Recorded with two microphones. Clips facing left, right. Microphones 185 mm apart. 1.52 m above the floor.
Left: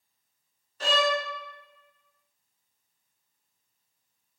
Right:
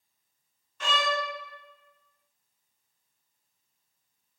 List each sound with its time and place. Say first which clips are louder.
0.8 s a violin: left 4 dB; 35° left (ahead or behind), 0.7 m